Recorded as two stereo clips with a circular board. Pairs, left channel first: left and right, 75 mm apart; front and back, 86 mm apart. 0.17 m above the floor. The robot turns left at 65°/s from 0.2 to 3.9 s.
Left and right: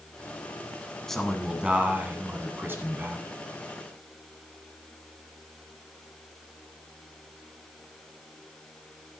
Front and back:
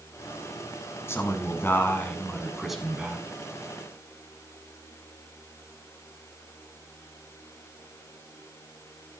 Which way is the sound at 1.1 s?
10° left.